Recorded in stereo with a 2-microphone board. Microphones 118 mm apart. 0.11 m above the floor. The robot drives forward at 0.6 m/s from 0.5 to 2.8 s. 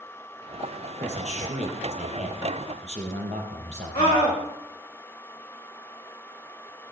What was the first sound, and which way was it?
A man speaking, 65° right (ahead or behind).